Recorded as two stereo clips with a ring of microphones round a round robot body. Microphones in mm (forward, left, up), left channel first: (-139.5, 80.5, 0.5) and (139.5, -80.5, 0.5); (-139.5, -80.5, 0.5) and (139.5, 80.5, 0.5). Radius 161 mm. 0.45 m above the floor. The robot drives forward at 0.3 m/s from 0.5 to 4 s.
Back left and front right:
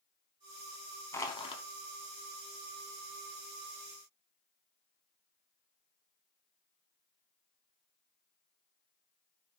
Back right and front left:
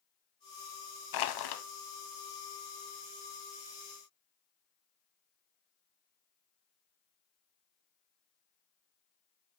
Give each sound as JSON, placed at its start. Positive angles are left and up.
{"t": 1.1, "sound": "crushing", "azimuth_deg": -130, "distance_m": 0.5}